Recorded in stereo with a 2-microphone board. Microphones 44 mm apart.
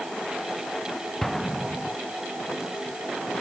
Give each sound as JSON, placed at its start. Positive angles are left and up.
{"t": 1.2, "sound": "an explosion", "side_deg": 5}